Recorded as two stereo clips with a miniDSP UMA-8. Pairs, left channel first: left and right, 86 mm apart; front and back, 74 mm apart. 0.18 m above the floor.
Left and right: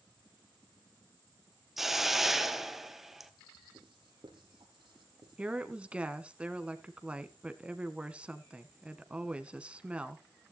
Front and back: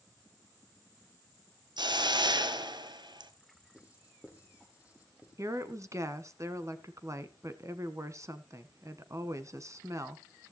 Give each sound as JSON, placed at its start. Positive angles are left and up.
{"t": 1.8, "sound": "a hiss", "azimuth_deg": -175, "distance_m": 1.3}
{"t": 3.8, "sound": "writing", "azimuth_deg": -110, "distance_m": 4.5}
{"t": 5.4, "sound": "a woman speaking", "azimuth_deg": -160, "distance_m": 1.4}